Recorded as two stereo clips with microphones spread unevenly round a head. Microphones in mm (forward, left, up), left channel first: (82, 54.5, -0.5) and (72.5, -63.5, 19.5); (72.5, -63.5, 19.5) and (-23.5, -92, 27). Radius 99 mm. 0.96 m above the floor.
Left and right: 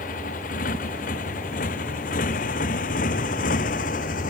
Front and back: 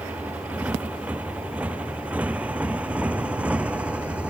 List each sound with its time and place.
0.0 s a motorcycle: 115° left